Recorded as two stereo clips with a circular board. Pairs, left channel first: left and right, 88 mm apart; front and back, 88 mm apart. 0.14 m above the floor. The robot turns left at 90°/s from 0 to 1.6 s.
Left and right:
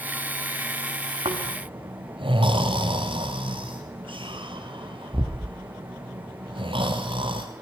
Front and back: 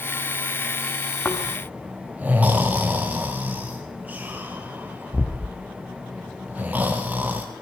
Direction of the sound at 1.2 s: 75° right.